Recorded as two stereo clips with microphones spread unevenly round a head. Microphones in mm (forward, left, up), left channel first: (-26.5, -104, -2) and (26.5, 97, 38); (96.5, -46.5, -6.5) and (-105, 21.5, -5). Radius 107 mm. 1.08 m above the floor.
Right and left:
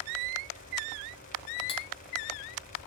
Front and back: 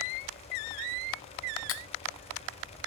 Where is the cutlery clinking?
35° right, 0.8 m.